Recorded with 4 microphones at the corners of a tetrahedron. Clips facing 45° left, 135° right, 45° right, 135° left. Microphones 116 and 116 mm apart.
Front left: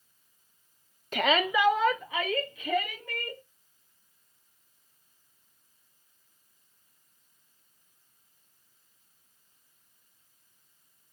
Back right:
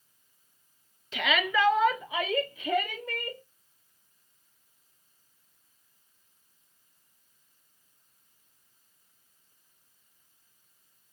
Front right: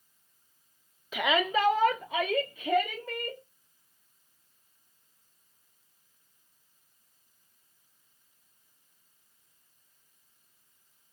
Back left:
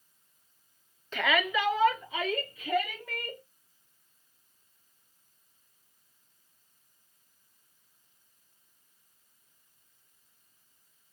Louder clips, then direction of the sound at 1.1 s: Front left 2 dB, front right 2 dB; 35° left.